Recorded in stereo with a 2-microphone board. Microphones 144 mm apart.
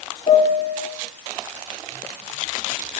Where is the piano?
45° left (ahead or behind), 3.5 m.